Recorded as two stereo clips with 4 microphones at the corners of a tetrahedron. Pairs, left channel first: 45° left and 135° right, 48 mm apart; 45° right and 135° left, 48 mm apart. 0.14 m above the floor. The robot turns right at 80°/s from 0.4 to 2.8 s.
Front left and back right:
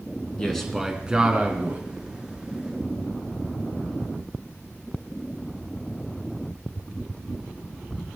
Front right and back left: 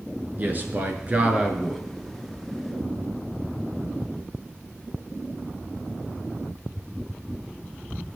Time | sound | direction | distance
0.4 | a man speaking | 110° left | 1.6 m